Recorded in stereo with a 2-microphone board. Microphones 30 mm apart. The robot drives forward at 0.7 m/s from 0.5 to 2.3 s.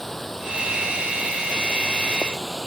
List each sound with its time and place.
0.0 s running water: 10° left (ahead or behind); by 2.7 s 15° left (ahead or behind)